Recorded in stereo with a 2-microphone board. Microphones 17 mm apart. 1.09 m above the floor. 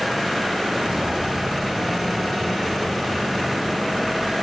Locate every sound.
0.8 s footsteps: 60° right (ahead or behind), 2 m; by 4.3 s 5° right (ahead or behind), 5 m